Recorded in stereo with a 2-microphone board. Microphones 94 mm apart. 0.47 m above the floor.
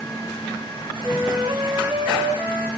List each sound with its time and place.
1.0 s a flute: 20° right (ahead or behind), 1.7 m